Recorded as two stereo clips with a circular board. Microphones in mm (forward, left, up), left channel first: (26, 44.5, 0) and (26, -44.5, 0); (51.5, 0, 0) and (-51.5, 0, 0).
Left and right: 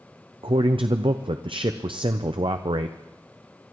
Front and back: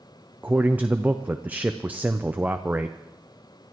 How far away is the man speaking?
About 0.6 m.